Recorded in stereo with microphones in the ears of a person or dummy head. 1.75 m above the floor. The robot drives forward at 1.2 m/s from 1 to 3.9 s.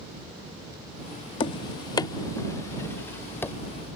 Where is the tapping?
25° left (ahead or behind); by 3.5 s 10° left (ahead or behind).